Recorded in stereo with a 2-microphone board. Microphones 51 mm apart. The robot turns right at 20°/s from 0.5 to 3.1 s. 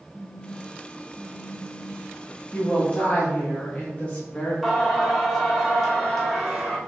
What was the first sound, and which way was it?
A phone buzzing, 105° left.